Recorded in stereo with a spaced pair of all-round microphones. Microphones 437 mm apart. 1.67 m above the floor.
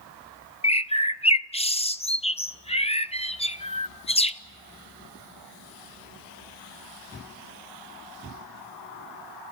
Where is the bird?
15° left (ahead or behind), 0.6 m.